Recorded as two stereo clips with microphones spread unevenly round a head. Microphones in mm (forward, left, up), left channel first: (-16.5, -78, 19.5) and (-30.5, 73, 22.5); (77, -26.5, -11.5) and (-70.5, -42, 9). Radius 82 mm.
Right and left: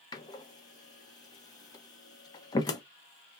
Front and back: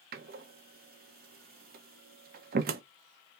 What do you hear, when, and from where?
0.1 s a door slam: 150° right, 0.7 m